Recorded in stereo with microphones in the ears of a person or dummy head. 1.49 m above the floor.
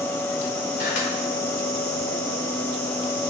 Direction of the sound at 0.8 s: 65° left (ahead or behind).